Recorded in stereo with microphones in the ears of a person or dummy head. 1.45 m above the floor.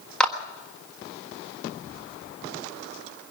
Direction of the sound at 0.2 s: Centre (ahead or behind).